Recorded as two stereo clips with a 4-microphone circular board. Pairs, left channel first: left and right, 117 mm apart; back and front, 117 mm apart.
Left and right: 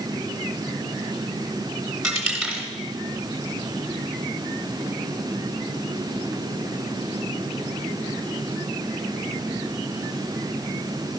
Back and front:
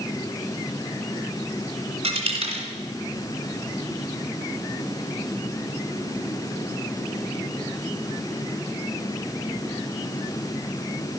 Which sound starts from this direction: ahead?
A dropped coin, at 2.0 s.